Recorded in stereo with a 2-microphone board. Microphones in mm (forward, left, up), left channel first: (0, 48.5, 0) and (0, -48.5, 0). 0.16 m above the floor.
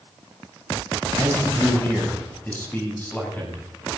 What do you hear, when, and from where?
1.1 s a man speaking: 25° left (ahead or behind), 8 m; by 4.0 s 15° left (ahead or behind), 9 m